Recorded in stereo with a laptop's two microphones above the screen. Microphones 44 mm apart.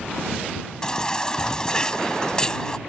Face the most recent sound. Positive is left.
turn(degrees=15)  # may be behind; listen again after turning